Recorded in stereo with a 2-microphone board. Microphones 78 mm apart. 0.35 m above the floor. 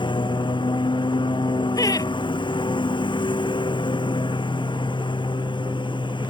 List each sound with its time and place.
0.0 s a lawn mower: 75° left (ahead or behind)
1.8 s laughter: 45° left (ahead or behind)